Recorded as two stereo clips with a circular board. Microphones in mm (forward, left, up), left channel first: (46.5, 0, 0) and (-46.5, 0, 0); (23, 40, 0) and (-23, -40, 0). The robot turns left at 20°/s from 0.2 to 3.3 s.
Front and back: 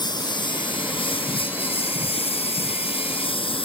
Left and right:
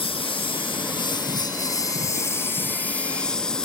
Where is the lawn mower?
40° left; by 3.7 s 20° right.